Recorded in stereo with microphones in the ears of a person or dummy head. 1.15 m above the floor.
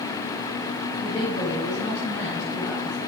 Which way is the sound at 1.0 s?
40° left (ahead or behind).